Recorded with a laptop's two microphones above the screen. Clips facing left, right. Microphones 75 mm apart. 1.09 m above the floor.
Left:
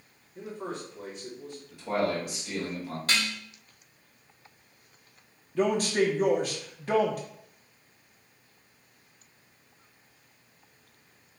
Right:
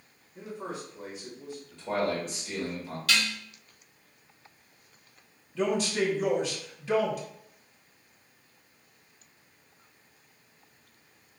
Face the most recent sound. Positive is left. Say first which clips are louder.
# left 3 dB
turn(degrees=45)  # may be behind; listen again after turning